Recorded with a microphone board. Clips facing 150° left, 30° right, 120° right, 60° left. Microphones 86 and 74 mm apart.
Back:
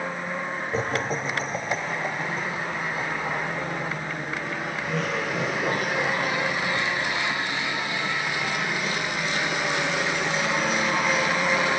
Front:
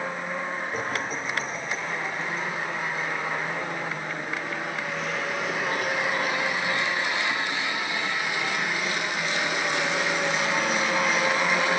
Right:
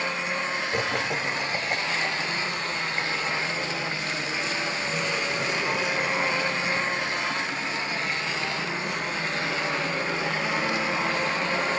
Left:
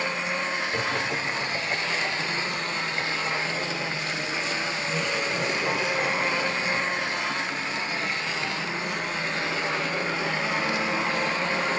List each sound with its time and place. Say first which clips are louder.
0.7 s laughter: back 3 dB, even; 170° right, 1.0 m; by 9.0 s 160° left, 5.5 m